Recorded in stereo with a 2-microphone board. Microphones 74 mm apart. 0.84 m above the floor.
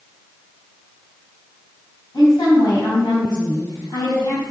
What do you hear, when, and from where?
2.1 s a woman speaking: 85° left, 4.5 m